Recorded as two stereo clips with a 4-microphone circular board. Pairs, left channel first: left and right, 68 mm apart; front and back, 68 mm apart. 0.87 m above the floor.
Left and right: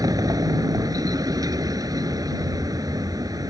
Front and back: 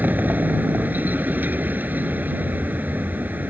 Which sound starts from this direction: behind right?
A vehicle, at 0.0 s.